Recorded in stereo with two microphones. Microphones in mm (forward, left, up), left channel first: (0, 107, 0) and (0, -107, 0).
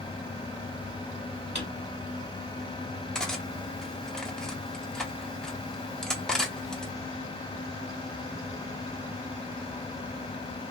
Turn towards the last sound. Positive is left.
turn(degrees=5)  # may be behind; listen again after turning